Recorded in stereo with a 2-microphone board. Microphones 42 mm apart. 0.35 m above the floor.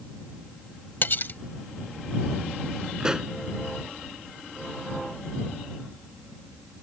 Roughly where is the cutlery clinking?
Left.